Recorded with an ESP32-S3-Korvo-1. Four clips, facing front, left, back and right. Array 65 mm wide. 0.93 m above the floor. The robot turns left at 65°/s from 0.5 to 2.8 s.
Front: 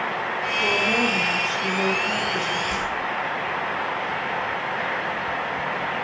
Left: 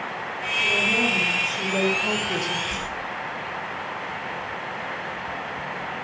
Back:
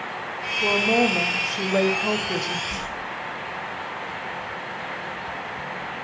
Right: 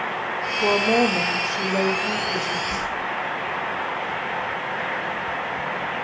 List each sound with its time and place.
0.6 s a woman speaking: 95° right, 2.5 m; by 2.6 s 135° left, 2.5 m
2.7 s a whoosh: 60° right, 7.5 m; by 3.0 s 70° right, 7.5 m